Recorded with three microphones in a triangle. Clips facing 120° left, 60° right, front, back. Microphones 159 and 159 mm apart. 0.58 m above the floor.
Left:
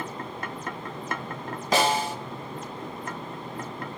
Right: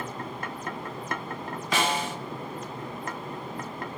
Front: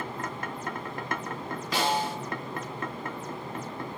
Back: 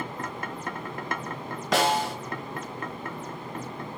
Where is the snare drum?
175° left, 1.3 m.